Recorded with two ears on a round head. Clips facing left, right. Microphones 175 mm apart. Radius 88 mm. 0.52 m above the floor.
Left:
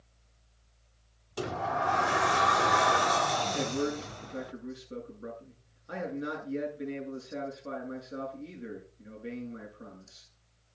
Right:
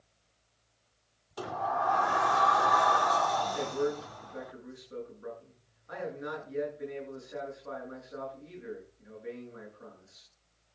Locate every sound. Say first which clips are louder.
1.4 s a sliding door: left 1 dB; 30° left (ahead or behind), 0.5 m
3.5 s a man speaking: even; 40° left (ahead or behind), 7.5 m